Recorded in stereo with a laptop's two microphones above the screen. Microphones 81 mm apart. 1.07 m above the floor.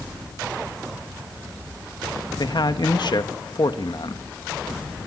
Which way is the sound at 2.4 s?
65° left (ahead or behind).